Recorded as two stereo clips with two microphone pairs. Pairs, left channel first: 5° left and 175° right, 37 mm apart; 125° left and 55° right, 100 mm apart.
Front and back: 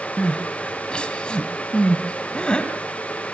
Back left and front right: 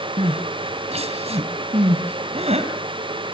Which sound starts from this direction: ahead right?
Crying, at 0.2 s.